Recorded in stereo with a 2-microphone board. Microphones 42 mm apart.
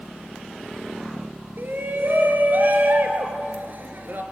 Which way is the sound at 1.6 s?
50° right (ahead or behind).